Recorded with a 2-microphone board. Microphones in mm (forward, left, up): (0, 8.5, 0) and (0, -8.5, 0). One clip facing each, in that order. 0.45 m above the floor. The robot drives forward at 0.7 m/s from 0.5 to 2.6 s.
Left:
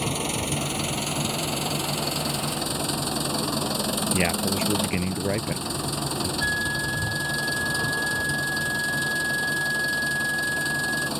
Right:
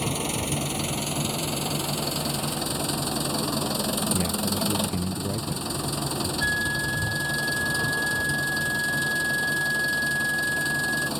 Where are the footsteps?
I don't hear footsteps.